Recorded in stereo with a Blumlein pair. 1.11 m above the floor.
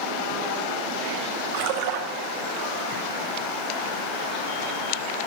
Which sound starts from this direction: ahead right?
A splash, at 1.5 s.